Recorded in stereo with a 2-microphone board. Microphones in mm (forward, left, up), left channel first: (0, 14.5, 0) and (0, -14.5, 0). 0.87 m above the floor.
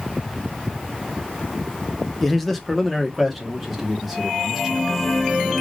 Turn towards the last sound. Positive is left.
turn(degrees=-10)  # may be behind; listen again after turning